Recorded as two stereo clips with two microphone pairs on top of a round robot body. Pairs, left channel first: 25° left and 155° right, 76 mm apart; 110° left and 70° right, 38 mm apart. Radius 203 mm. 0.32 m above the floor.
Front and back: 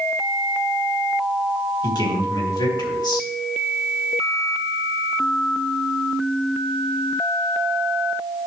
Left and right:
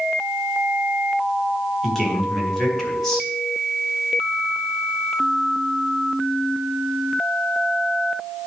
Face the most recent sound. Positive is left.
turn(degrees=25)